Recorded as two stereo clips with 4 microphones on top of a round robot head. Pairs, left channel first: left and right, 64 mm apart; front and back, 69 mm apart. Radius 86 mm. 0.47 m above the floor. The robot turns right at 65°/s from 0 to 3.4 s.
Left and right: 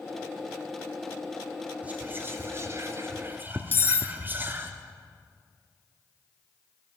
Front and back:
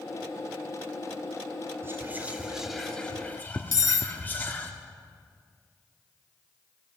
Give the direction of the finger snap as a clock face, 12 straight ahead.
No finger snap in this recording.